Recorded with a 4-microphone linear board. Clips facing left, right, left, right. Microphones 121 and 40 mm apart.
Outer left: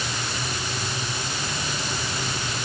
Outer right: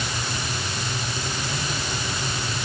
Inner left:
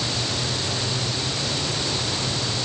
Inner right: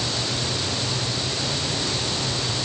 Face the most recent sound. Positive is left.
No sound to turn to.